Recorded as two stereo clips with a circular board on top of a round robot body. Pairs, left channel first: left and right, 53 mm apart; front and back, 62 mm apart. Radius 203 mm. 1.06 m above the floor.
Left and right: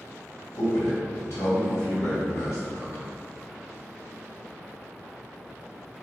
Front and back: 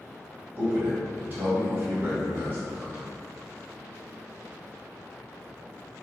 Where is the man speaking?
125° left, 1.8 m.